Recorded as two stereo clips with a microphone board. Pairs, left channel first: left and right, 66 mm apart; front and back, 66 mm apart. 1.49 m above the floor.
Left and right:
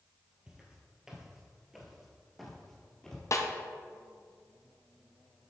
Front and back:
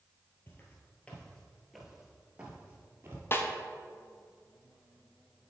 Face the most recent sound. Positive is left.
turn(degrees=50)